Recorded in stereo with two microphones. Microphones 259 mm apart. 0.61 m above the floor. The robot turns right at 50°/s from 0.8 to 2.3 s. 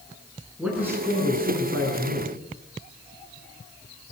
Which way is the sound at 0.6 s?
175° right.